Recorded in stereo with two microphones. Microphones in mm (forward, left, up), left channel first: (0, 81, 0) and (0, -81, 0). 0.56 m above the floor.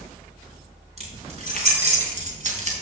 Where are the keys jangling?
40° right (ahead or behind), 4.5 m; by 2.7 s 50° right (ahead or behind), 2.5 m.